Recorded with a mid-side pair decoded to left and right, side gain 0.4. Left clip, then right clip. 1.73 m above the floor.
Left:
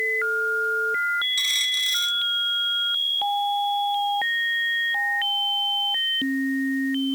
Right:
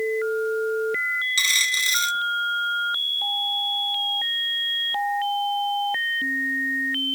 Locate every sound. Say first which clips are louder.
1.4 s a dropped coin: right 2 dB; 55° right